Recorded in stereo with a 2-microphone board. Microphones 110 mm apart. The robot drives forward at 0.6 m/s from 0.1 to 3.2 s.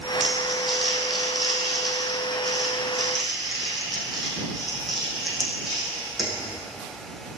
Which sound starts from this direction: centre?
Crumpling, at 0.2 s.